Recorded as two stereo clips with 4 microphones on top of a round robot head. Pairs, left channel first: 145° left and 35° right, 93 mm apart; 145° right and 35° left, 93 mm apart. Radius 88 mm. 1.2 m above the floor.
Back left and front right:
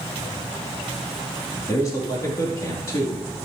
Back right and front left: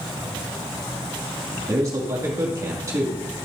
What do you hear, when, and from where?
1.7 s a man speaking: 90° left, 2 m